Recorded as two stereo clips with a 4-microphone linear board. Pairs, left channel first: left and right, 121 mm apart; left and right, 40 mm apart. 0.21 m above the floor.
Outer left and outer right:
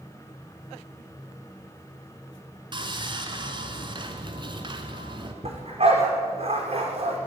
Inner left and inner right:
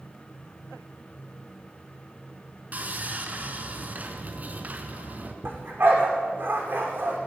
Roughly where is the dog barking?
Right.